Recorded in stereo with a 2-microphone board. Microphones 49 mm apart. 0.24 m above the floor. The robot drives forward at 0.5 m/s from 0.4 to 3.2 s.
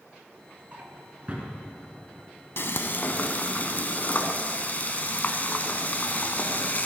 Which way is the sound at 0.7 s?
35° right (ahead or behind).